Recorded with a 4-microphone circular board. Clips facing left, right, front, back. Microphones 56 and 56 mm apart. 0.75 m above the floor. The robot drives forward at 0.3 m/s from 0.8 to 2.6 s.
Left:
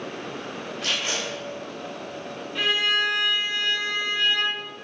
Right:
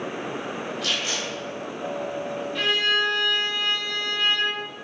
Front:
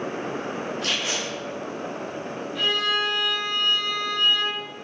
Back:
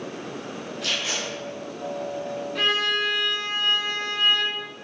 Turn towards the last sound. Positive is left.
turn(degrees=170)